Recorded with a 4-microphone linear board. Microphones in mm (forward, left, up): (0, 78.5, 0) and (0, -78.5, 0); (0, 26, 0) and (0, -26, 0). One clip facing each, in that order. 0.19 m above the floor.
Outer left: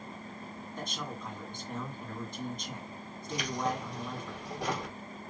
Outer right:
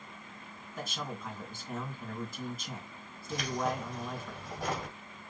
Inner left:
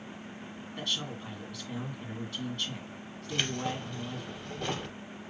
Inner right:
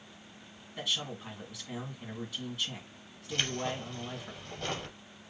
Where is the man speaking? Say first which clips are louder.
Outer right 1 dB, even; 5° right (ahead or behind), 1.8 m.